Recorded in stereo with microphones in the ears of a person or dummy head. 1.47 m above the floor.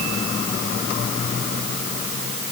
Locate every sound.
Only background noise.